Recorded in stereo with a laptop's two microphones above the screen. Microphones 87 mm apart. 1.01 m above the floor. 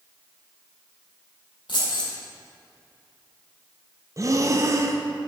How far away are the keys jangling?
About 2 m.